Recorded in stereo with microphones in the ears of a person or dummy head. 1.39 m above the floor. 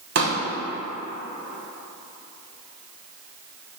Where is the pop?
55° right (ahead or behind), 1.2 m.